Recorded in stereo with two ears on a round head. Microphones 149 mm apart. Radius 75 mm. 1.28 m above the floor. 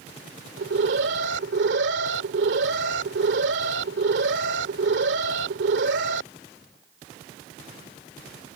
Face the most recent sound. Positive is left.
turn(degrees=-80)